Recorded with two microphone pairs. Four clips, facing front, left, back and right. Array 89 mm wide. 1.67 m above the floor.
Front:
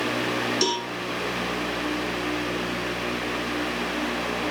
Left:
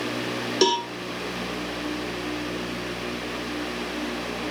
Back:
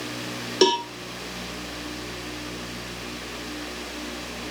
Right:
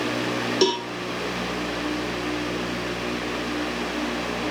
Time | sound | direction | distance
0.6 | a cowbell | 160° left | 0.6 m